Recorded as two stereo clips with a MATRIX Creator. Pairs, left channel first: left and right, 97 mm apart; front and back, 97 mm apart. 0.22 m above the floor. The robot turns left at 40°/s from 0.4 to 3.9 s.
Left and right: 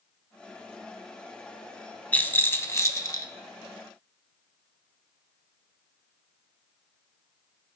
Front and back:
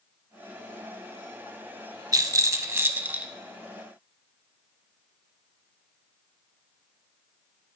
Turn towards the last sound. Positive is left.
turn(degrees=85)